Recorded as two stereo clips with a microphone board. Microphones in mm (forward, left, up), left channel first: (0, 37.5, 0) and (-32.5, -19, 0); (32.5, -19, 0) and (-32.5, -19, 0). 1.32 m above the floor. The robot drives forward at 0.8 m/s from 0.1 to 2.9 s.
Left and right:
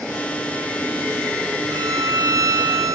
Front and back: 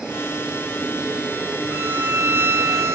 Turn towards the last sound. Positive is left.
turn(degrees=-140)